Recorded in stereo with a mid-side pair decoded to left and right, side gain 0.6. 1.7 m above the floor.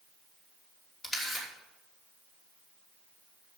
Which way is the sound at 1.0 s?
35° left.